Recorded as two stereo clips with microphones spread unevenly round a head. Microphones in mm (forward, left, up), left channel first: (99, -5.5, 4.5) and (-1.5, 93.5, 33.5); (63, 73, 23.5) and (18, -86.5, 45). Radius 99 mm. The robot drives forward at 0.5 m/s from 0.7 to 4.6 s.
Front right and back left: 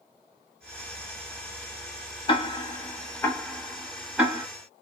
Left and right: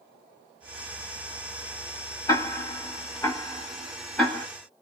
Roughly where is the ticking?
Ahead.